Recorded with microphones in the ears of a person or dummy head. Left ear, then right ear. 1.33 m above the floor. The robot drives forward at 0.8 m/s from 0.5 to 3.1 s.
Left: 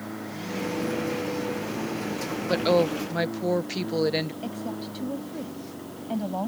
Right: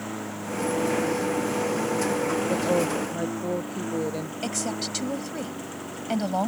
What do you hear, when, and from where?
0.0 s a lawn mower: 75° right (ahead or behind); by 6.5 s 60° right (ahead or behind)
2.5 s a woman speaking: 50° left (ahead or behind); by 4.3 s 65° left (ahead or behind)
4.4 s a woman speaking: 70° right (ahead or behind)